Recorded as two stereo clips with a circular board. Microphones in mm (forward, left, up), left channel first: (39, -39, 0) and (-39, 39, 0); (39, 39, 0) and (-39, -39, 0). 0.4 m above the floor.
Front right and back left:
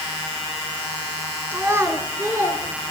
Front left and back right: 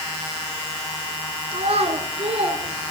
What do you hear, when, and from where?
1.5 s a child speaking: 155° right, 2.5 m